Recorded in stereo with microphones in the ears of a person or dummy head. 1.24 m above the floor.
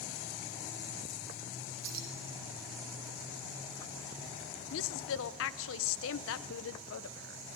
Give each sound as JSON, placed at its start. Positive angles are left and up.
{"t": 1.8, "sound": "keys jangling", "side_deg": -80, "distance_m": 2.5}
{"t": 4.7, "sound": "a woman speaking", "side_deg": 60, "distance_m": 0.9}